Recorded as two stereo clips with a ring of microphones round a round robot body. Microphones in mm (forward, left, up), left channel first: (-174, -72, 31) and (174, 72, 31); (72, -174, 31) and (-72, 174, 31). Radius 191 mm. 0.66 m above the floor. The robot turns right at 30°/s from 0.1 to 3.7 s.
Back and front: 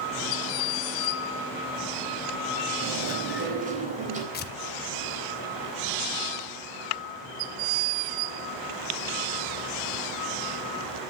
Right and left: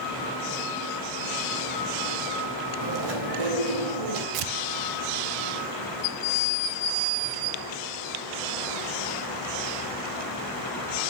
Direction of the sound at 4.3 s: 140° left.